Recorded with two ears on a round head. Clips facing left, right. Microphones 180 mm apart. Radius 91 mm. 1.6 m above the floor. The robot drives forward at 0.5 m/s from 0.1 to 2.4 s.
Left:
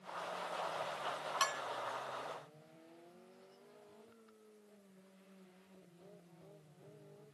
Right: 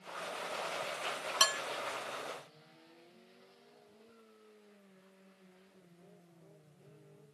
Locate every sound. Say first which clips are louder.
1.4 s dishes clattering: right 5 dB; 65° right (ahead or behind); by 1.6 s 70° right (ahead or behind)